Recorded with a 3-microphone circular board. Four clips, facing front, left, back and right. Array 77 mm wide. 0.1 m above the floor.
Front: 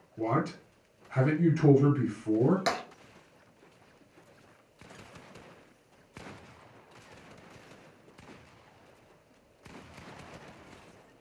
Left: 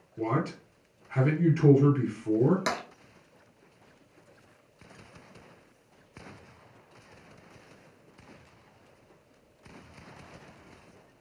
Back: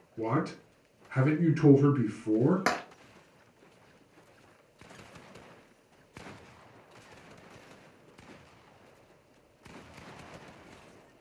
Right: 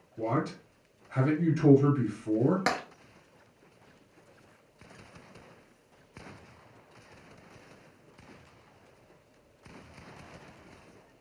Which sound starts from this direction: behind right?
Tapping, at 2.7 s.